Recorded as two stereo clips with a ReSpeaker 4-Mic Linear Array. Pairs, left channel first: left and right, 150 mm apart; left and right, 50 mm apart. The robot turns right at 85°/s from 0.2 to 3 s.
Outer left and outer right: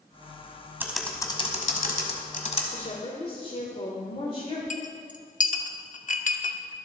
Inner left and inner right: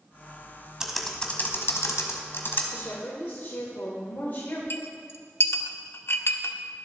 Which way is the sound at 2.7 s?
60° left (ahead or behind).